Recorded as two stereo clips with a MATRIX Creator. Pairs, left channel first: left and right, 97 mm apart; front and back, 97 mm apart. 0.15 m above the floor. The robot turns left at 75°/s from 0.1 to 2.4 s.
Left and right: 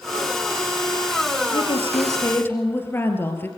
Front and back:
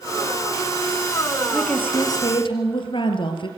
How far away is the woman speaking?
About 3 m.